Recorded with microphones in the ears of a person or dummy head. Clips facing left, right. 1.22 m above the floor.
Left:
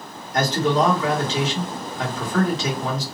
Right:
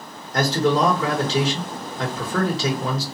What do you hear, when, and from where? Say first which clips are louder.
0.3 s a man speaking: right 1 dB; 40° right (ahead or behind), 1.4 m